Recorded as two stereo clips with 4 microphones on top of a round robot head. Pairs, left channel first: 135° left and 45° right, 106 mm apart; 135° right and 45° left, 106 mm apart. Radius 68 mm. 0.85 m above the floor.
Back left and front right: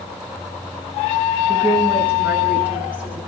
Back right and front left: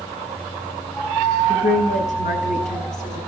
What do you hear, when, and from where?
1.5 s a woman speaking: 120° right, 8 m